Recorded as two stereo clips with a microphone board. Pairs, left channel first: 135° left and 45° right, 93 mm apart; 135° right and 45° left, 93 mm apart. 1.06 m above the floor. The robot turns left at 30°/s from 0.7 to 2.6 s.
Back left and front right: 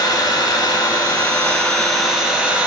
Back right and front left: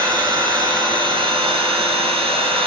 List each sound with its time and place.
0.0 s an engine running: 90° left, 0.8 m; by 2.7 s 30° left, 0.8 m